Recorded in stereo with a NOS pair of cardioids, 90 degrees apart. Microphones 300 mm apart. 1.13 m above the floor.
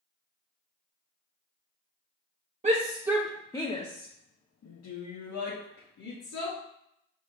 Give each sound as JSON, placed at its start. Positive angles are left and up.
{"t": 2.6, "sound": "a shout", "azimuth_deg": -25, "distance_m": 0.9}